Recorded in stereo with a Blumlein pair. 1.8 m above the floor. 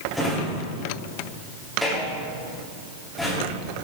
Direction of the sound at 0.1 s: Straight ahead.